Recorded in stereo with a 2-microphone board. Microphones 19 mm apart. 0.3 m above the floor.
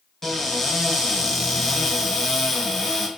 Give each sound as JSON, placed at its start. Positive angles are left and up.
{"t": 0.2, "sound": "a cupboard door", "side_deg": 25, "distance_m": 1.4}